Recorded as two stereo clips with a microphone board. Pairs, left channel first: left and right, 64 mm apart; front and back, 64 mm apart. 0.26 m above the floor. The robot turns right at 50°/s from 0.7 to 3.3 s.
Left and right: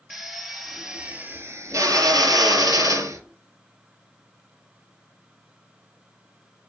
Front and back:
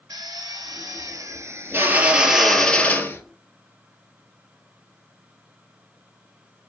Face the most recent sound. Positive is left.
turn(degrees=-50)